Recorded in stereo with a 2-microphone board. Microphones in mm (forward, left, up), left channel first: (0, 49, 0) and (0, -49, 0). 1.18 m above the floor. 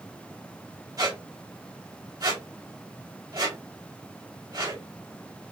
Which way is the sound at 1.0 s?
45° right (ahead or behind).